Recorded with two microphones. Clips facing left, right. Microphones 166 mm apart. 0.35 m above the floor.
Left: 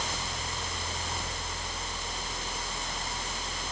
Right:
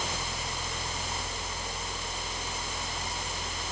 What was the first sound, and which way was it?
Only background noise.